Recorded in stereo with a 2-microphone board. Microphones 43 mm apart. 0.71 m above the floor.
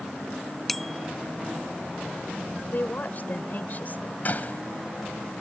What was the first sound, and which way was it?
A bicycle bell, 5° left (ahead or behind).